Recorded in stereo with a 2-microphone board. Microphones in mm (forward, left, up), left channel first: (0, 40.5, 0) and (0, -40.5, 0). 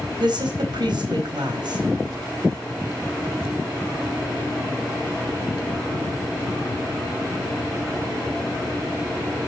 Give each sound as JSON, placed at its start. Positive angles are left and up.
{"t": 0.2, "sound": "a woman speaking", "side_deg": -65, "distance_m": 4.0}